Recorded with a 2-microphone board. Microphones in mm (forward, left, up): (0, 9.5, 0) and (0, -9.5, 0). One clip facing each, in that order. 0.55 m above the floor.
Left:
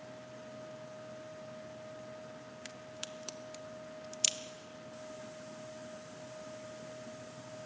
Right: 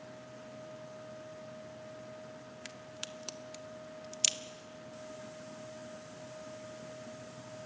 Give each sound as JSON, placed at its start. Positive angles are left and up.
{"t": 2.6, "sound": "a crack", "side_deg": -15, "distance_m": 1.0}